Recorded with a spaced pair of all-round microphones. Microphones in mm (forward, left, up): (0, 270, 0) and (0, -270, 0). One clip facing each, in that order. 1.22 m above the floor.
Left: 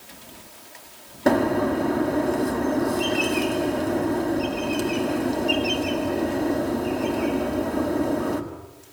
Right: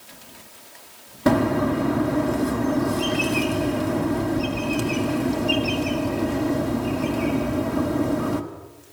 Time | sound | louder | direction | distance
1.3 | a bird | right 1 dB | 30° right (ahead or behind) | 1.6 m